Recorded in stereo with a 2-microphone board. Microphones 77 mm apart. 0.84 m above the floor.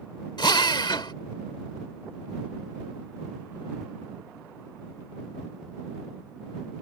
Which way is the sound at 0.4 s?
75° left (ahead or behind).